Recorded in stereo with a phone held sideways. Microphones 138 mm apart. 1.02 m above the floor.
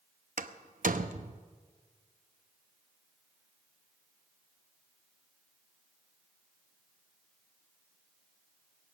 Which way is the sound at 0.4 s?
75° right (ahead or behind).